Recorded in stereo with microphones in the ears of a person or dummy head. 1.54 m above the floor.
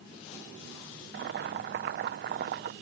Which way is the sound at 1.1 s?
55° right (ahead or behind).